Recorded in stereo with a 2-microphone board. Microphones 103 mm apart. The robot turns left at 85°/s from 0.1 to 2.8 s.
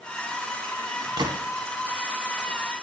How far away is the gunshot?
About 0.9 m.